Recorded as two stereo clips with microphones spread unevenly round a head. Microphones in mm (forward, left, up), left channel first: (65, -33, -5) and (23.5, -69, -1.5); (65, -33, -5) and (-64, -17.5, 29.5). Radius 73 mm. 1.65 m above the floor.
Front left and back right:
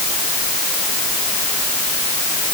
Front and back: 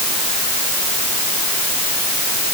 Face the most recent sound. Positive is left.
No sound to turn to.